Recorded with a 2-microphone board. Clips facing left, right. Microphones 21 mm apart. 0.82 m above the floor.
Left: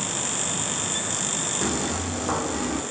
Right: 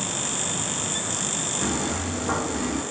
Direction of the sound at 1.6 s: 45° left (ahead or behind).